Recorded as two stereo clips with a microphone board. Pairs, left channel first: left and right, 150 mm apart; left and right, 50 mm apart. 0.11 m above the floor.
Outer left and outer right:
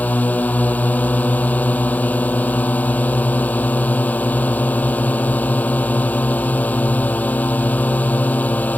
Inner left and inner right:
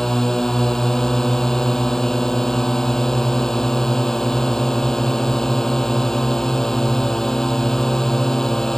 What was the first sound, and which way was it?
A drone, 10° left (ahead or behind).